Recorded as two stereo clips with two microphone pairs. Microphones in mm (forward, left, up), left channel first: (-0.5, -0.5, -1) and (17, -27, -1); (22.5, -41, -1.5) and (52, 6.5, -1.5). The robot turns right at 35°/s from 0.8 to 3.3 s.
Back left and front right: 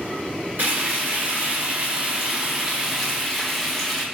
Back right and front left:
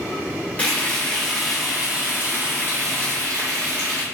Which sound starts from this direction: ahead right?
Frying, at 0.6 s.